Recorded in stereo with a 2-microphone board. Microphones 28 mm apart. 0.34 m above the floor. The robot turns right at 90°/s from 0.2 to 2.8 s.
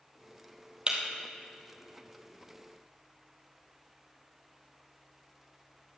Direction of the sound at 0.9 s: 40° right (ahead or behind).